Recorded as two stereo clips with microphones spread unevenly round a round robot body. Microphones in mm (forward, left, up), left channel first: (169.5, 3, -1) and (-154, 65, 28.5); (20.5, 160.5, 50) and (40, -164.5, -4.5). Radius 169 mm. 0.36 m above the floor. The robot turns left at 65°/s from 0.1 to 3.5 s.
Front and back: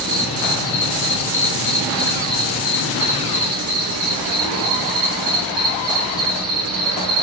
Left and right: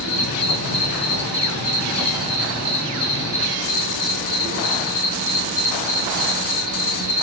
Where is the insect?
75° left, 3 m; by 7.2 s 145° right, 3 m.